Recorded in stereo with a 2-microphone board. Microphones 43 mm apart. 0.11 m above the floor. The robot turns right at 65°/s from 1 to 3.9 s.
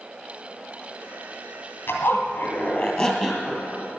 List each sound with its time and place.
1.9 s a zipper: 75° left, 2 m; by 3.6 s 170° right, 2 m